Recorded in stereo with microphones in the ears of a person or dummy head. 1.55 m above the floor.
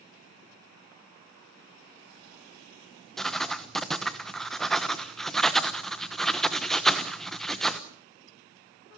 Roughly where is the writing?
Centre.